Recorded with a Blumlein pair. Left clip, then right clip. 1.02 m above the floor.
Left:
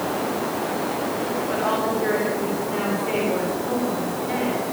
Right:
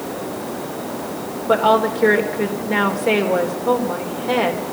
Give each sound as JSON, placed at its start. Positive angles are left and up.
{"t": 1.5, "sound": "a woman speaking", "azimuth_deg": -30, "distance_m": 3.5}